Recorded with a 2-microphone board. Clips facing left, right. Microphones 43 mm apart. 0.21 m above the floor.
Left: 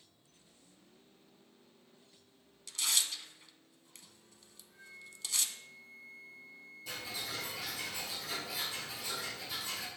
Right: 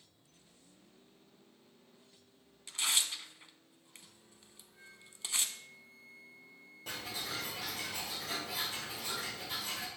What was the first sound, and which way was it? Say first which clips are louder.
Tearing paper: right 1 dB; 25° right (ahead or behind).